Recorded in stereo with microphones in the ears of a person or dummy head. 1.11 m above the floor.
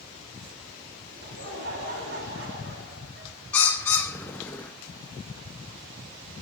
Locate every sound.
1.1 s laughter: 65° right (ahead or behind), 2.5 m
3.5 s a bird: 10° left (ahead or behind), 0.6 m